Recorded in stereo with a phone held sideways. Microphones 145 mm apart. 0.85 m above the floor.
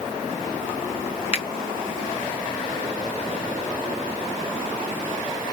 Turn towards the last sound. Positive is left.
turn(degrees=40)  # may be behind; listen again after turning